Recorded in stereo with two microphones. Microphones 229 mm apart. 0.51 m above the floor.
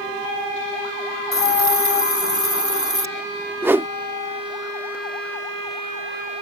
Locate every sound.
1.3 s a hiss: 70° left (ahead or behind)
3.6 s a whoosh: 10° right (ahead or behind)